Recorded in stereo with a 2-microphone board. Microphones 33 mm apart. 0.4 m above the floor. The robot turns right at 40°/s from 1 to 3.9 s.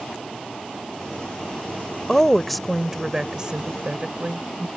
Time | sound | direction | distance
2.1 | a woman speaking | 155° left | ?